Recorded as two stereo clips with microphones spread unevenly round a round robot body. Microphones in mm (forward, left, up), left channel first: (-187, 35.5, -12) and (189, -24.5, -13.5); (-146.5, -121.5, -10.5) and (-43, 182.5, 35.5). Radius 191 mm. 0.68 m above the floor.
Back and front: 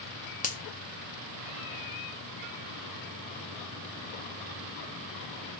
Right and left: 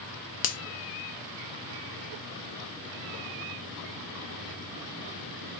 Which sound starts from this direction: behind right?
A finger snap, at 0.4 s.